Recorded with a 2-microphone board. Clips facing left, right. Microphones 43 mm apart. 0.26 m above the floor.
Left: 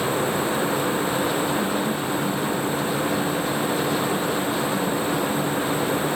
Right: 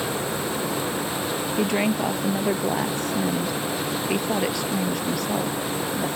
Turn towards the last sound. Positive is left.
turn(degrees=-75)  # may be behind; listen again after turning